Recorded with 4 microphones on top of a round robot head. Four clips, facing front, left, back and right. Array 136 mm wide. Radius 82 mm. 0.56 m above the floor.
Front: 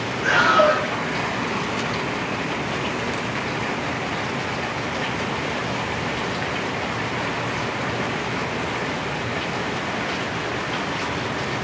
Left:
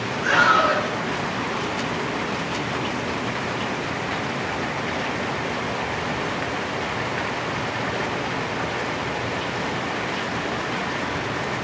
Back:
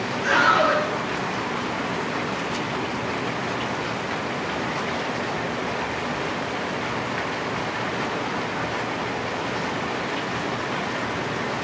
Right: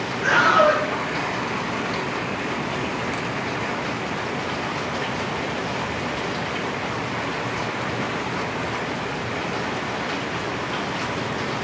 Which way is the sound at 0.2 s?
115° right.